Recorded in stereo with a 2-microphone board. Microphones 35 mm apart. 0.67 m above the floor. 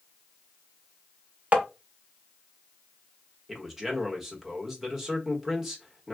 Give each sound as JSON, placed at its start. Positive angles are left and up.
{"t": 1.5, "sound": "tapping", "side_deg": -40, "distance_m": 0.8}
{"t": 3.5, "sound": "a man speaking", "side_deg": -10, "distance_m": 0.9}